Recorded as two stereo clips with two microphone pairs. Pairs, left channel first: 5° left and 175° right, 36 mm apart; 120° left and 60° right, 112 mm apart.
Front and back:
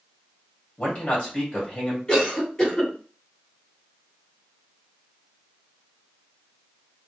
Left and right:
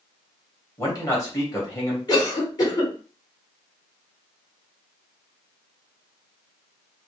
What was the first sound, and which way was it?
A man speaking, 60° left.